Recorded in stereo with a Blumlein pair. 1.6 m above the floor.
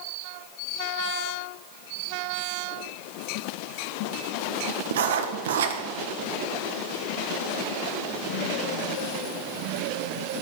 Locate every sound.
4.9 s writing: 60° right, 1.5 m